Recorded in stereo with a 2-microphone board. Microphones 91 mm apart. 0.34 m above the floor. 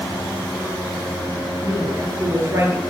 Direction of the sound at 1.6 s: 35° right (ahead or behind).